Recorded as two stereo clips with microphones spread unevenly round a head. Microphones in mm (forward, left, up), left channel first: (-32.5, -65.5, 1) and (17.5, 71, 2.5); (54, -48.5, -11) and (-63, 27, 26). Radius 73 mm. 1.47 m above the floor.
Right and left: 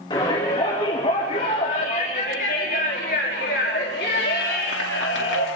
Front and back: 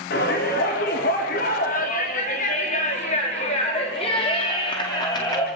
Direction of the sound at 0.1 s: 50° right.